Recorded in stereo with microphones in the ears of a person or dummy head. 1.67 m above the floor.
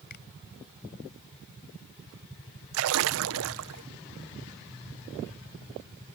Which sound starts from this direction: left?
A finger snap, at 0.1 s.